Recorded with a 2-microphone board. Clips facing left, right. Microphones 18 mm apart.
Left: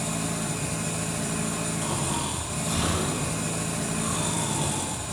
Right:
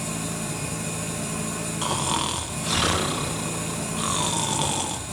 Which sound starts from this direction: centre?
An engine running, at 0.0 s.